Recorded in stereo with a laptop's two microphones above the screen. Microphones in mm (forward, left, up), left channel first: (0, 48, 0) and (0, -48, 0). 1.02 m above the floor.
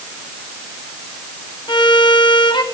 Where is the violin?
60° left (ahead or behind), 1.9 m.